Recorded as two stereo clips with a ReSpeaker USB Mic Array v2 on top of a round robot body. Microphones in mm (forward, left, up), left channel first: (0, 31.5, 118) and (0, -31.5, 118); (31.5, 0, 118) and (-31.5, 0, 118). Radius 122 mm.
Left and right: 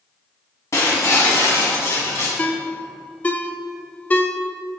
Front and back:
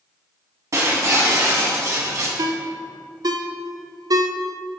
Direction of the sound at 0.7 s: 135° left.